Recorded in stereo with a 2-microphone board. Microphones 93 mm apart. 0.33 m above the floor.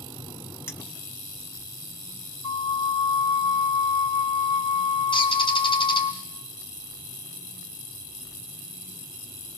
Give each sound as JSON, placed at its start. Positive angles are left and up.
{"t": 0.7, "sound": "a clink", "side_deg": 25, "distance_m": 1.6}
{"t": 2.4, "sound": "a flute", "side_deg": 65, "distance_m": 0.5}
{"t": 5.1, "sound": "a bird", "side_deg": 65, "distance_m": 3.0}